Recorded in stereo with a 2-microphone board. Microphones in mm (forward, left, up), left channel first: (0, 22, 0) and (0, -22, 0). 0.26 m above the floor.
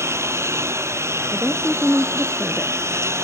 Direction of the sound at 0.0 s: 85° right.